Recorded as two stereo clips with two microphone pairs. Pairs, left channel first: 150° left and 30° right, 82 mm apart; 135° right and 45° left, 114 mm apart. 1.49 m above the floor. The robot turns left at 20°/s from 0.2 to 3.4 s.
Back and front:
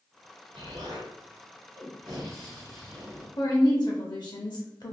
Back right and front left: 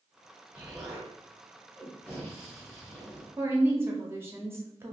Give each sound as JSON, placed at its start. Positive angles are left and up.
{"t": 0.5, "sound": "an explosion", "azimuth_deg": -30, "distance_m": 1.5}
{"t": 3.4, "sound": "a woman speaking", "azimuth_deg": 115, "distance_m": 0.8}